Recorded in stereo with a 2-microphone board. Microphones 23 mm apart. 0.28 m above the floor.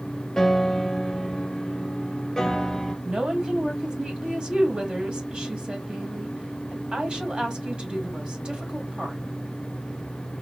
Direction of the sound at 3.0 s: 45° right (ahead or behind).